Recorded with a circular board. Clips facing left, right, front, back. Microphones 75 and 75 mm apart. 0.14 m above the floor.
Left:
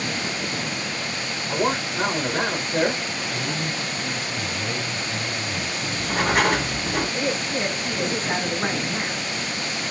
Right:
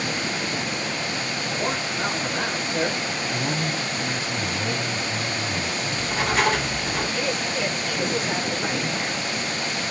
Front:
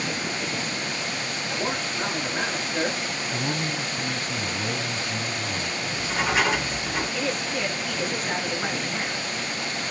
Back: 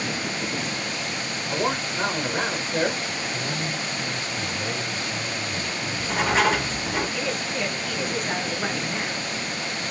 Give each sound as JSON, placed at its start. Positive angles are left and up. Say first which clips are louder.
{"t": 1.5, "sound": "a man speaking", "louder": "left 5 dB, back 4 dB", "azimuth_deg": 130, "distance_m": 4.5}
{"t": 3.3, "sound": "a man speaking", "louder": "right 2 dB, front 1 dB", "azimuth_deg": -25, "distance_m": 2.0}
{"t": 5.8, "sound": "writing", "louder": "left 4 dB, back 2 dB", "azimuth_deg": 120, "distance_m": 5.5}
{"t": 7.1, "sound": "a woman speaking", "louder": "left 1 dB, even", "azimuth_deg": 95, "distance_m": 1.9}